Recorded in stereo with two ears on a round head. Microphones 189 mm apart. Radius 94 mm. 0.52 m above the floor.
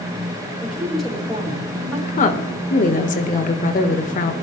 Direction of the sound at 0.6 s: Centre (ahead or behind).